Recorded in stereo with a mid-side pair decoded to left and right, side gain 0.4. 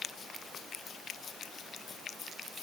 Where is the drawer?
I don't hear a drawer.